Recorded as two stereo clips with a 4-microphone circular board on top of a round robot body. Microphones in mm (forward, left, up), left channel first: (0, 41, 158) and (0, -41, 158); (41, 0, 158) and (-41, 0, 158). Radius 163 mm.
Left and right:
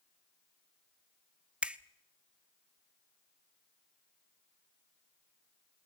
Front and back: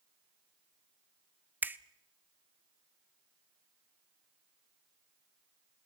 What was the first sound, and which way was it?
A finger snap, 150° right.